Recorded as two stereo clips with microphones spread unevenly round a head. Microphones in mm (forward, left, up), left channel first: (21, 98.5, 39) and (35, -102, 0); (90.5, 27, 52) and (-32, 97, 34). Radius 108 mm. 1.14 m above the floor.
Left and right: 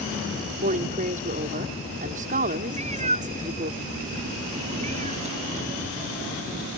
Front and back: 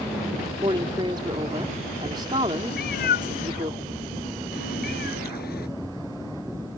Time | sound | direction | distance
0.6 | a woman speaking | 140° right | ?
2.7 | a cat meowing | 25° right | ?